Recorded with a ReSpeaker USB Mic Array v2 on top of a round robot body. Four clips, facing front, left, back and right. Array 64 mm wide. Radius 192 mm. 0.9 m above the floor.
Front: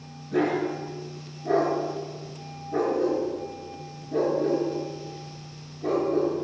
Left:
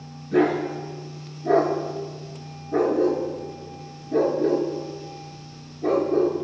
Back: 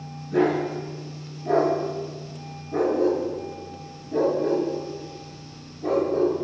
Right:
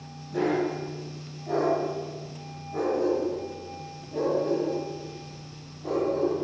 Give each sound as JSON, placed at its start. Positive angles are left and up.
{"t": 0.3, "sound": "a dog barking", "azimuth_deg": 85, "distance_m": 6.0}